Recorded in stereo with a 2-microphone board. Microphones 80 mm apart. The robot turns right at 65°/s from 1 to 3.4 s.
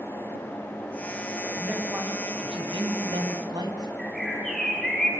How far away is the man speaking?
About 7.5 m.